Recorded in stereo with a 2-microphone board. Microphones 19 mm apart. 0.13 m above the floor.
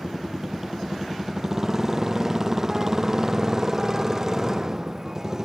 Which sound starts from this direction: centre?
A motorcycle, at 0.0 s.